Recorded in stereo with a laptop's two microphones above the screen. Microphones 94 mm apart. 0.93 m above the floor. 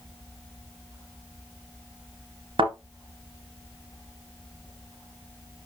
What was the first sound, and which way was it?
A thud, 65° right (ahead or behind).